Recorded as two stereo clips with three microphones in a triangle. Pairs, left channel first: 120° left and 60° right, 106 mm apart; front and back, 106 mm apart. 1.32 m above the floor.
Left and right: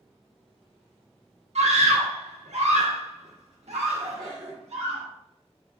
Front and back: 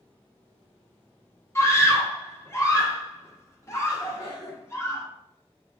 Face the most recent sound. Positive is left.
turn(degrees=-35)